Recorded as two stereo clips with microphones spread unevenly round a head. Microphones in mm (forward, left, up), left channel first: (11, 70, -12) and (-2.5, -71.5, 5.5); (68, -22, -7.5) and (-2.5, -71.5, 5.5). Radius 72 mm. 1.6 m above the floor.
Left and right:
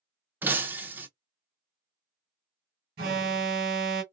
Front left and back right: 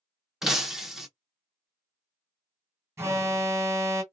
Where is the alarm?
85° right, 1.3 m.